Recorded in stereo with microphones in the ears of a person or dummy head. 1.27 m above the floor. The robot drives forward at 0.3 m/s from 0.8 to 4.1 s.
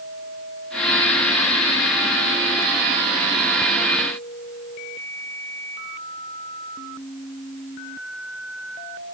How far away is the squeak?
No squeak in this recording.